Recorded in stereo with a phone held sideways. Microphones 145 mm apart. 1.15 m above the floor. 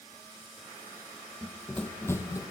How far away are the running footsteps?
About 1.6 m.